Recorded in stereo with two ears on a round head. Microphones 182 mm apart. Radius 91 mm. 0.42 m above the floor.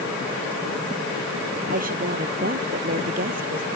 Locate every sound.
1.7 s a woman speaking: 45° right (ahead or behind)